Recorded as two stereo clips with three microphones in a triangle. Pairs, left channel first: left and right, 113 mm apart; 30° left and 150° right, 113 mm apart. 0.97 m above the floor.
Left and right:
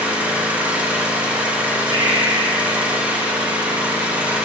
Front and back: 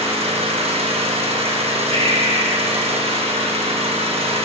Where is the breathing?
130° right, 1.6 m.